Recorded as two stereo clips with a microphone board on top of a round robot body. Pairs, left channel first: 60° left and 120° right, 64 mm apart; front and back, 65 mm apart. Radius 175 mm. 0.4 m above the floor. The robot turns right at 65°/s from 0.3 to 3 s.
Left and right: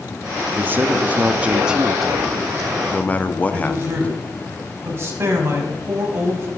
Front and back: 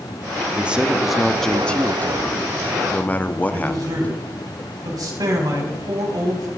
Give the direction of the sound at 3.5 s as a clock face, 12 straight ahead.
6 o'clock.